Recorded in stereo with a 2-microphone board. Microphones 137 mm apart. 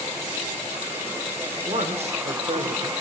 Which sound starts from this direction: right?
A man speaking, at 1.6 s.